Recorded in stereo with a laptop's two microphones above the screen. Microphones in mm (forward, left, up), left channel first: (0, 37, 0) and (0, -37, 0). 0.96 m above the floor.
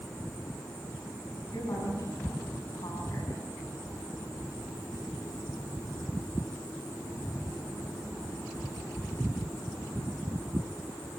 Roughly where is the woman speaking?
Left.